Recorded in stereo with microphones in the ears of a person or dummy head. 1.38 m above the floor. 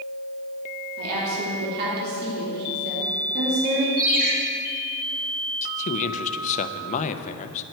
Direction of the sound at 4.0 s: 50° right (ahead or behind).